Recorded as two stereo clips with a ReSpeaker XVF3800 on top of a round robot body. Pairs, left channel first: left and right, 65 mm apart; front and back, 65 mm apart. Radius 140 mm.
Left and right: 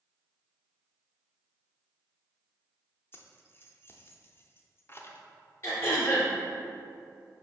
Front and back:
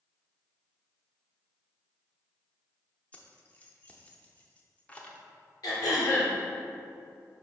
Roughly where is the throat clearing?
Ahead left.